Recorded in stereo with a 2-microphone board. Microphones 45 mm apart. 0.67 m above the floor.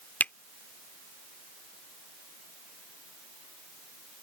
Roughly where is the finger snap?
Left.